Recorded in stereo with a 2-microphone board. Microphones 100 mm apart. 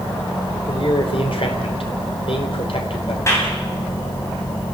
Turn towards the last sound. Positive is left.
turn(degrees=30)  # may be behind; listen again after turning